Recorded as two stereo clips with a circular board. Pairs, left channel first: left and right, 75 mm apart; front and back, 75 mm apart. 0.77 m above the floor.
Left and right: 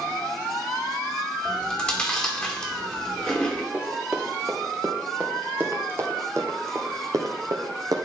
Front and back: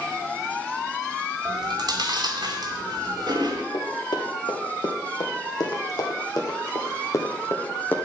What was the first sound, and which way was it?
Chewing, 165° left.